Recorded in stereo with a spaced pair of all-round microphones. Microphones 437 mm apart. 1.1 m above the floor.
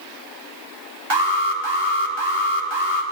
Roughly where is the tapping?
I don't hear tapping.